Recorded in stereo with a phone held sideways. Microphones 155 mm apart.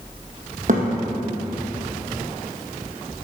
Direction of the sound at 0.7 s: 60° right (ahead or behind).